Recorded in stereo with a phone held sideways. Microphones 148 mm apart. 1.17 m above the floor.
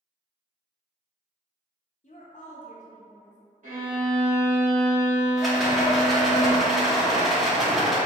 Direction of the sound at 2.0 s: 55° left (ahead or behind).